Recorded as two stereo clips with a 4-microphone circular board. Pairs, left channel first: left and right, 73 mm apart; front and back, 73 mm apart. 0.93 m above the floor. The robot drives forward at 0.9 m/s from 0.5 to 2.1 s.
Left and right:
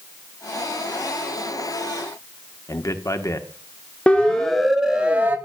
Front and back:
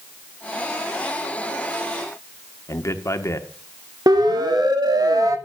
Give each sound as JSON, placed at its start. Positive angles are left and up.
{"t": 2.7, "sound": "a man speaking", "azimuth_deg": 50, "distance_m": 1.7}
{"t": 4.1, "sound": "a siren", "azimuth_deg": 165, "distance_m": 2.5}